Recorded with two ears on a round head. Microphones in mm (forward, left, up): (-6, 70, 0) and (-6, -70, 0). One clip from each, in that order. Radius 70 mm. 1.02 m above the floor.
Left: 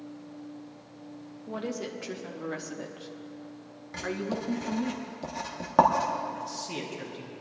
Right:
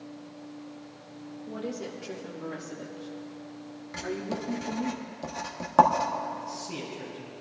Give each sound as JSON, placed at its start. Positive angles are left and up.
{"t": 1.5, "sound": "a woman speaking", "side_deg": 20, "distance_m": 1.6}
{"t": 3.9, "sound": "writing", "side_deg": -15, "distance_m": 1.0}
{"t": 6.3, "sound": "a man speaking", "side_deg": 40, "distance_m": 3.5}